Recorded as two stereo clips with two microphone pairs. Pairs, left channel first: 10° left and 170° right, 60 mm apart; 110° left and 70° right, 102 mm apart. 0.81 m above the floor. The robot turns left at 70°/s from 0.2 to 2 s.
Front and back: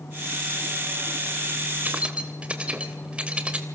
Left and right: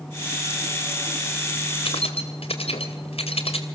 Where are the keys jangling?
135° left, 3 m; by 3.6 s 125° left, 3 m.